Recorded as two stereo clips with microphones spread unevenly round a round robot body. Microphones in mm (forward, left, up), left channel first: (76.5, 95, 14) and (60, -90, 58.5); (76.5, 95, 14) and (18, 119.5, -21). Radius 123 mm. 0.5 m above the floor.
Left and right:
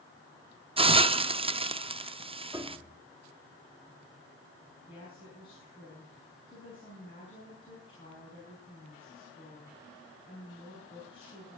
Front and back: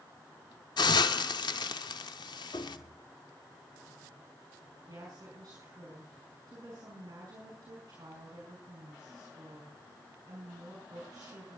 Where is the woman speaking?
150° left, 5.5 m.